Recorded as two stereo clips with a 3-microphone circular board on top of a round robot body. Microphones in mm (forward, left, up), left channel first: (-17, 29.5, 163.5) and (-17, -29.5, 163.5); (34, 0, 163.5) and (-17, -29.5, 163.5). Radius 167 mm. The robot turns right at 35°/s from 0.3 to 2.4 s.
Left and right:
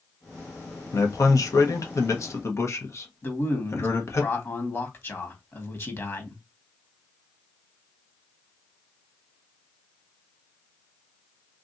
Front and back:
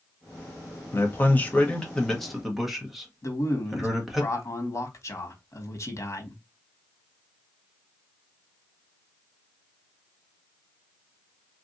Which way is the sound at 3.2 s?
50° left.